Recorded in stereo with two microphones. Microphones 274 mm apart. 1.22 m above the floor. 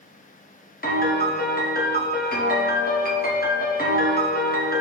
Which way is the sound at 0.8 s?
35° left (ahead or behind).